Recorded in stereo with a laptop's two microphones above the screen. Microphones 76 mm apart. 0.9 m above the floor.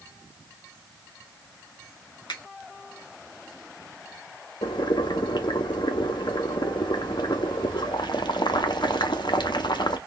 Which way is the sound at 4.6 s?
80° left.